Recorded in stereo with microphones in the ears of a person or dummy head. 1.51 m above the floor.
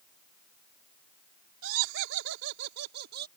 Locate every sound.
1.6 s laughter: 90° right; by 3.3 s 60° right (ahead or behind)